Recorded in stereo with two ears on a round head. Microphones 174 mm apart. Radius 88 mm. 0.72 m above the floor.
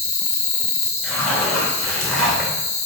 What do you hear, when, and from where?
0.0 s an insect: 35° left (ahead or behind), 1.7 m
1.0 s a zipper: 5° left (ahead or behind), 2 m